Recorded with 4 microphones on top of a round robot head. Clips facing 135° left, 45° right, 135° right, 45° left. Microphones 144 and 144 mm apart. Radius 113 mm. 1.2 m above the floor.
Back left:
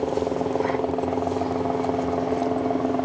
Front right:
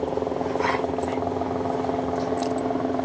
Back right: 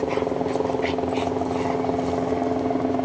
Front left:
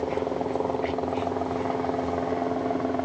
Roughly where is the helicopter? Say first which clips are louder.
Back left 2 dB, back right 4 dB; behind.